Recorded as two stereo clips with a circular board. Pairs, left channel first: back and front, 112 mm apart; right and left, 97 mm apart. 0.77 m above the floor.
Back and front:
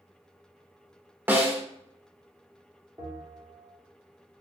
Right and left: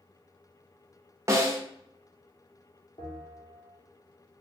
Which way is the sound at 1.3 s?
60° left.